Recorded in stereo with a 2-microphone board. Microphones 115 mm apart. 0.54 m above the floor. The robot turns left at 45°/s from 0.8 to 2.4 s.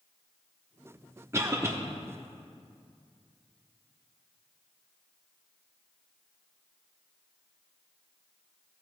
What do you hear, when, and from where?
1.3 s a cough: 25° right (ahead or behind), 0.7 m